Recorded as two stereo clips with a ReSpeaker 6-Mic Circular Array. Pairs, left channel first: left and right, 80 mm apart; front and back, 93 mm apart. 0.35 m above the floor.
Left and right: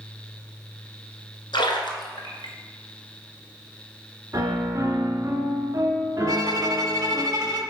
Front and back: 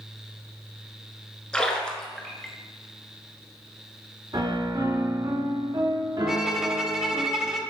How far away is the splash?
About 1.4 m.